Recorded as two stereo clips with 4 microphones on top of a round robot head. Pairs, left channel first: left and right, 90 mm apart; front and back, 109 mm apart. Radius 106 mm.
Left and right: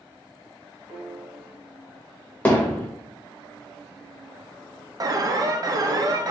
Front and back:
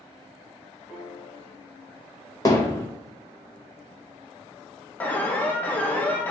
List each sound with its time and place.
0.9 s a piano: 45° right, 2 m
2.5 s hammering: 30° left, 0.5 m
5.0 s an alarm: 70° right, 0.7 m